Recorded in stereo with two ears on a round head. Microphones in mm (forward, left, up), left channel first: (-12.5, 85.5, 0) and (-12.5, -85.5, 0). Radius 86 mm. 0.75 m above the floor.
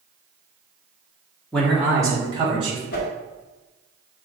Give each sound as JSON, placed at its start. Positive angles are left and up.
{"t": 1.5, "sound": "a man speaking", "side_deg": 5, "distance_m": 1.2}
{"t": 2.9, "sound": "a whoosh", "side_deg": 45, "distance_m": 1.3}